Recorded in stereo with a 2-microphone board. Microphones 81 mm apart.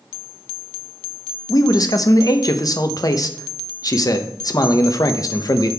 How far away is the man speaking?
About 0.7 m.